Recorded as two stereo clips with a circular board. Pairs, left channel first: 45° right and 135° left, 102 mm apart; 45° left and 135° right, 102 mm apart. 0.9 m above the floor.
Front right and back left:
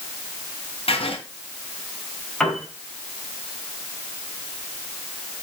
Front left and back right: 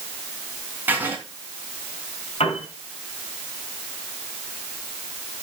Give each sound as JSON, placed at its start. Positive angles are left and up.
{"t": 0.9, "sound": "writing", "azimuth_deg": -65, "distance_m": 3.0}
{"t": 2.4, "sound": "a piano", "azimuth_deg": 35, "distance_m": 5.0}